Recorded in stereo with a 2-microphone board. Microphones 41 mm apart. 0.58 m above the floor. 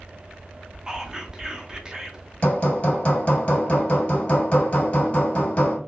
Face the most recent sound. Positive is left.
turn(degrees=30)  # may be behind; listen again after turning